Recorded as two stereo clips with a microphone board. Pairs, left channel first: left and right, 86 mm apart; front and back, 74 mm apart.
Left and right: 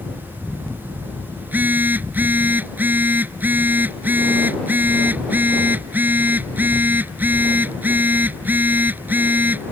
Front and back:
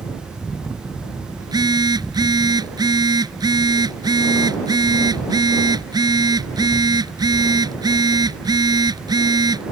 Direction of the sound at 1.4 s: 160° right.